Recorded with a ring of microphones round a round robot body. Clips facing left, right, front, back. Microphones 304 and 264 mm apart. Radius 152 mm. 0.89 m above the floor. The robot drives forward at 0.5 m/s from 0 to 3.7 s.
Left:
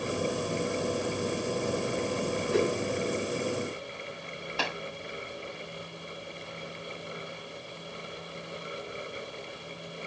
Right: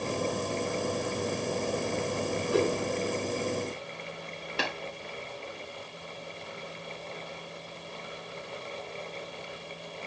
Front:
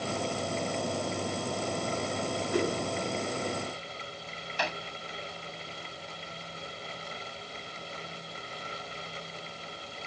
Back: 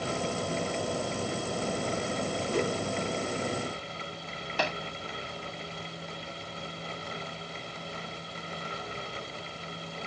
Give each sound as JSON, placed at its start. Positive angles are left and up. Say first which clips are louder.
{"t": 2.5, "sound": "a whoosh", "louder": "even, front 1 dB", "azimuth_deg": 0, "distance_m": 5.5}
{"t": 4.6, "sound": "tapping", "louder": "right 1 dB, back 3 dB", "azimuth_deg": -155, "distance_m": 3.5}